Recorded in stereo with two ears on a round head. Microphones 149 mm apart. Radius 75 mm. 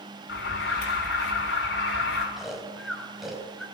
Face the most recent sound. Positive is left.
turn(degrees=0)  # may be behind; listen again after turning